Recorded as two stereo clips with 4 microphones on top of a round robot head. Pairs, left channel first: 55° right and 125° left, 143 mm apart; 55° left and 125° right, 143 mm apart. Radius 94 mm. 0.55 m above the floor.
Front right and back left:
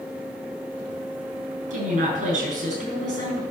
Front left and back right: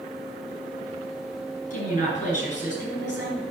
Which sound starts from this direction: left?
A woman speaking, at 1.7 s.